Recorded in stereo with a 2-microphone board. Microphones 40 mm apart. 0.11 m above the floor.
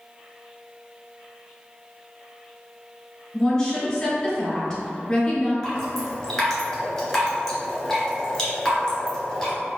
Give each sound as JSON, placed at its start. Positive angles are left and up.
{"t": 3.3, "sound": "a woman speaking", "side_deg": 20, "distance_m": 1.1}
{"t": 5.6, "sound": "dripping", "side_deg": 5, "distance_m": 1.5}